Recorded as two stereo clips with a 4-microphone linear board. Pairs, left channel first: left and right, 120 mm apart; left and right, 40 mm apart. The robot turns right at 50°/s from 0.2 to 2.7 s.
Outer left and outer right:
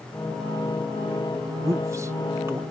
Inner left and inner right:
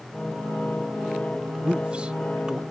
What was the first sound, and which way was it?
A man speaking, 20° right (ahead or behind).